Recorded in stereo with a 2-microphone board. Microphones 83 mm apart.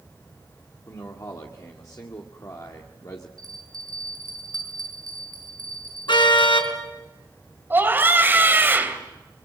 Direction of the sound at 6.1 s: 80° left.